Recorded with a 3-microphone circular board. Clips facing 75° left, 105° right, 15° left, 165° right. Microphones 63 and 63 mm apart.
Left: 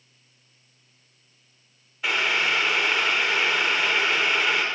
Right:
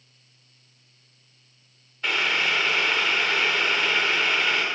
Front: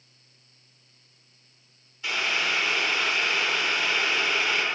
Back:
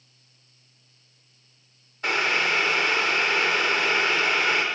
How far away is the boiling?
About 1.2 m.